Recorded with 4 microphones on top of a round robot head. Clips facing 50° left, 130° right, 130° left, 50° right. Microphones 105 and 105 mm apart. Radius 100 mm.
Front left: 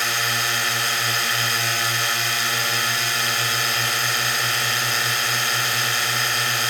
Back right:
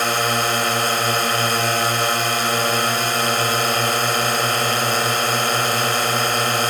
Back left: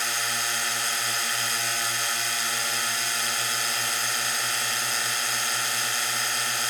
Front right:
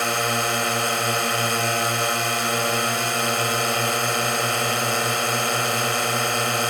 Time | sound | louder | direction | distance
0.0 | a drone | back right 6 dB, front right 9 dB | 85° right | ?